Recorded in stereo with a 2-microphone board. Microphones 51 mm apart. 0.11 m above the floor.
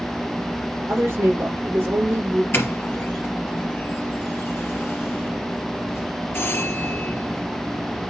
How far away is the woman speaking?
About 4 m.